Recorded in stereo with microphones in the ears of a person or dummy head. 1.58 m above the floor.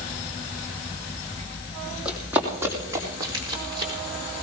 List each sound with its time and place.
2.0 s running footsteps: 5° right (ahead or behind), 3.5 m; by 3.9 s 30° right (ahead or behind), 5 m